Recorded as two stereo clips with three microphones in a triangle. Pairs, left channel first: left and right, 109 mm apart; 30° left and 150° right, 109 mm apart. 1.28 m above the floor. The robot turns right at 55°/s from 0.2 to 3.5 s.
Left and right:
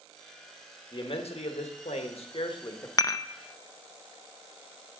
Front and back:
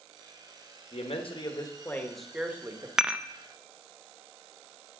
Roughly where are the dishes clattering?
Behind left.